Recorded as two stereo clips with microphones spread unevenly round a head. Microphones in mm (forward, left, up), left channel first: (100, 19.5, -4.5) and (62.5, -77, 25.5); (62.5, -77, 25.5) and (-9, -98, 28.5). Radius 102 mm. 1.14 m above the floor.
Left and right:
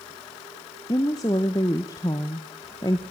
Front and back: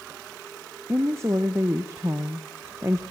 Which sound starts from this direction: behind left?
A woman speaking, at 0.9 s.